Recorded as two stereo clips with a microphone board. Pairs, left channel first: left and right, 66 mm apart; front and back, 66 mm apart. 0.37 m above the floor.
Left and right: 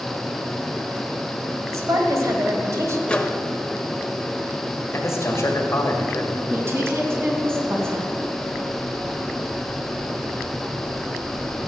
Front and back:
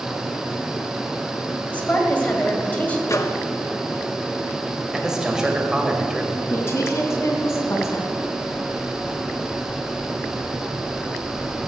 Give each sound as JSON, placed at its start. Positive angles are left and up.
{"t": 1.7, "sound": "a woman speaking", "azimuth_deg": -60, "distance_m": 1.9}
{"t": 3.1, "sound": "a microwave", "azimuth_deg": 20, "distance_m": 0.9}
{"t": 4.9, "sound": "a man speaking", "azimuth_deg": 105, "distance_m": 1.5}
{"t": 6.5, "sound": "a woman speaking", "azimuth_deg": -40, "distance_m": 2.5}